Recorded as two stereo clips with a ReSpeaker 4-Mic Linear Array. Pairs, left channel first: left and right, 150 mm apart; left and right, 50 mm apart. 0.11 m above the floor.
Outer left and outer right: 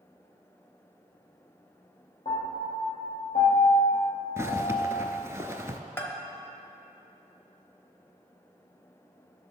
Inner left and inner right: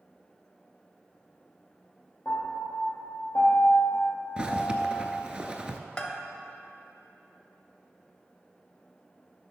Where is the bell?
15° left (ahead or behind), 1.1 m.